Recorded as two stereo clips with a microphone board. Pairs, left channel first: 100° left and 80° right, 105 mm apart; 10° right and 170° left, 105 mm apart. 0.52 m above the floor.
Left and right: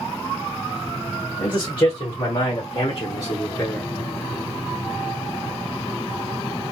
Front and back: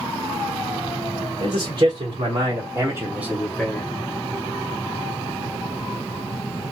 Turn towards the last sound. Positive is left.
turn(degrees=40)